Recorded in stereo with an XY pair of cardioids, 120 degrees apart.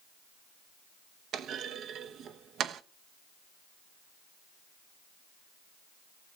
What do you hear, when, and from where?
1.3 s a clunk: 60° right, 0.8 m